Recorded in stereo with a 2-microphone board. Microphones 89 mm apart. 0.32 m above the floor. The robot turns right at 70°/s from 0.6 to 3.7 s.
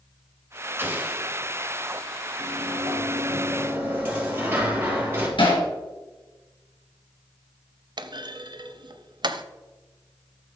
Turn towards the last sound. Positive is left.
turn(degrees=-60)  # may be behind; listen again after turning